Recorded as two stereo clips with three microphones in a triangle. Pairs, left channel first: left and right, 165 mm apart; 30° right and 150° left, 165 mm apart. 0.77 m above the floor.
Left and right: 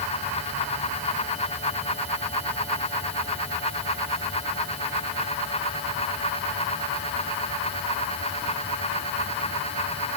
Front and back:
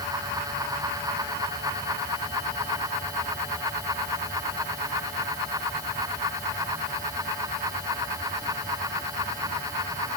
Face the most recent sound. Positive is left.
No sound to turn to.